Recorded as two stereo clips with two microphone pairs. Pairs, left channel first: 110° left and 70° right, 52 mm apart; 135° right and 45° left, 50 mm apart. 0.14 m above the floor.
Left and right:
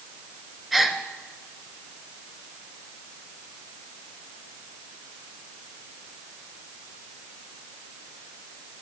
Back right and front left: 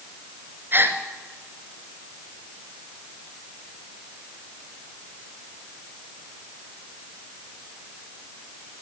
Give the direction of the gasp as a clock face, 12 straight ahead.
11 o'clock.